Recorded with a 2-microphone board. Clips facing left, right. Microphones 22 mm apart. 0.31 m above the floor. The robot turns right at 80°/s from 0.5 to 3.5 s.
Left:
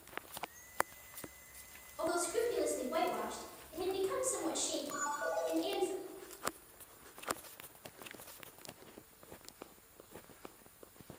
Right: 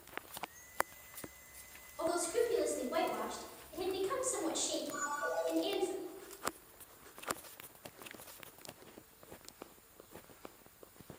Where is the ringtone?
40° left (ahead or behind), 1.0 m.